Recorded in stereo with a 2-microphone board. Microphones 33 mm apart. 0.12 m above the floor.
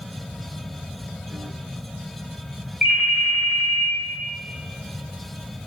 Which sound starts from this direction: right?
A ringtone, at 2.8 s.